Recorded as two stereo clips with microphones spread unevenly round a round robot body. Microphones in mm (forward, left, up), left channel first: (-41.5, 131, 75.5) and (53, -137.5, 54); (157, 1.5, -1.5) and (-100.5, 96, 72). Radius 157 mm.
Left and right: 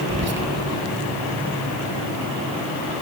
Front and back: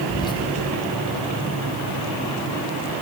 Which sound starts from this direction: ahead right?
Whispering, at 0.1 s.